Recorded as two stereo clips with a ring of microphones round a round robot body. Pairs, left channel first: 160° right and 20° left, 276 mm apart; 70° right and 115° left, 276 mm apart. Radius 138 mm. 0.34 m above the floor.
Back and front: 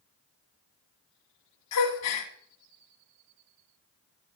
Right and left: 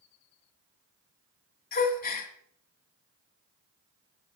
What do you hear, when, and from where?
1.7 s a gasp: 125° right, 1.9 m